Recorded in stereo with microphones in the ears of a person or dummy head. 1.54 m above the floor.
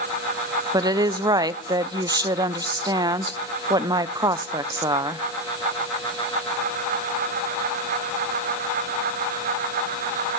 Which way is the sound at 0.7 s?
20° right (ahead or behind).